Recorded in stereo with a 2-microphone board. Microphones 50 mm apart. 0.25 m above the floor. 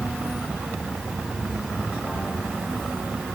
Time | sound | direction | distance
0.0 | an insect | 20° right (ahead or behind) | 6 m